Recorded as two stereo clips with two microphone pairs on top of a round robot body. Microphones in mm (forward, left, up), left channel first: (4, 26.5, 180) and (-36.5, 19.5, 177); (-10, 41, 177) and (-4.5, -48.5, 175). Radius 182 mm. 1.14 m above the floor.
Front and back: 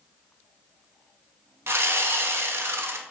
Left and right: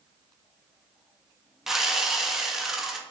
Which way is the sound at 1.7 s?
170° right.